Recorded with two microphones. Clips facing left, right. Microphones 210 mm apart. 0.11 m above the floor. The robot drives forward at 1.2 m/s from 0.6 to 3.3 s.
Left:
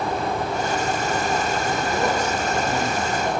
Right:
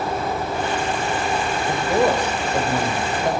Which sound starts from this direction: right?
A man speaking, at 1.7 s.